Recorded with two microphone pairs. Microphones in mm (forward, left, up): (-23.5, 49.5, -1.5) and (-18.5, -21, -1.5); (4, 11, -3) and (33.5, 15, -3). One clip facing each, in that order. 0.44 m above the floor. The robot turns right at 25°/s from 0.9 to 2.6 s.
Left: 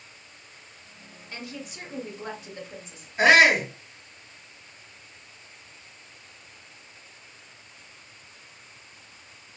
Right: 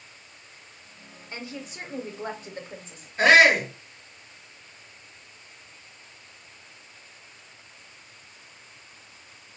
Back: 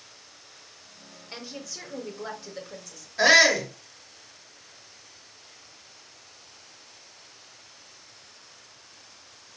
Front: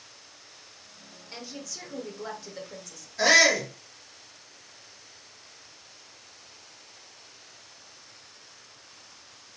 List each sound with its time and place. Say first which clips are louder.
1.3 s a woman speaking: right 1 dB, back 1 dB; 120° right, 1.0 m; by 3.1 s 90° right, 1.0 m
3.2 s a shout: right 1 dB, back 2 dB; 160° left, 1.3 m